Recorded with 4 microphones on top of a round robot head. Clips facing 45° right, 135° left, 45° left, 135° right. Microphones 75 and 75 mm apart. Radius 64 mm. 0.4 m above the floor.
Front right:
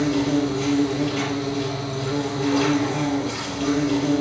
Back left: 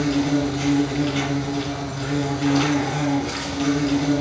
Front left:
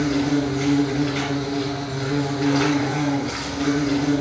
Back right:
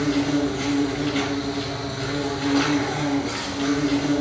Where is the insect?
125° left, 3.5 m.